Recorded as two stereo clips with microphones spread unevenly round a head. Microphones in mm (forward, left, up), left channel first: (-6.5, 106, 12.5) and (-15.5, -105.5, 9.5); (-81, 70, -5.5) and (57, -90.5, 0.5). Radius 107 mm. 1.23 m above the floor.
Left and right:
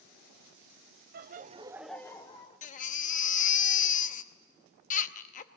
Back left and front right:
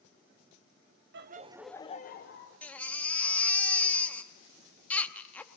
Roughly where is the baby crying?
Ahead left.